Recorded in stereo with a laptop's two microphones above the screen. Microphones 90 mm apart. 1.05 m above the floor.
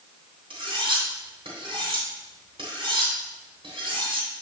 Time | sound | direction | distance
0.5 | cutlery clinking | 80° right | 2.5 m